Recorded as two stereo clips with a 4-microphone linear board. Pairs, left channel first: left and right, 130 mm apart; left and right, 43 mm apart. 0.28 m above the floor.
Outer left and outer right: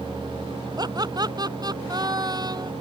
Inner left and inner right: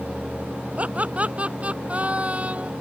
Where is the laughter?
35° right (ahead or behind).